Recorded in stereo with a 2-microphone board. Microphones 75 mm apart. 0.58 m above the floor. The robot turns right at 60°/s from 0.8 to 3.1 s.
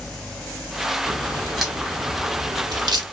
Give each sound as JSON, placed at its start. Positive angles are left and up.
{"t": 1.1, "sound": "a crack", "side_deg": 30, "distance_m": 1.0}